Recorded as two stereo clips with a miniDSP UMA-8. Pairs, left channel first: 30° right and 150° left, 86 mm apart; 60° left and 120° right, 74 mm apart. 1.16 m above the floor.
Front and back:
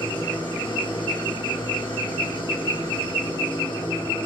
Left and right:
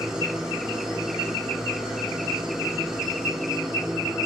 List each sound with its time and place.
0.0 s an engine running: 40° right, 9.5 m